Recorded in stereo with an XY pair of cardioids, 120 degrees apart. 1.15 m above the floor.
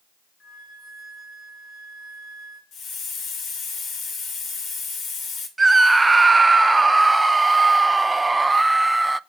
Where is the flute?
40° left, 3.5 m.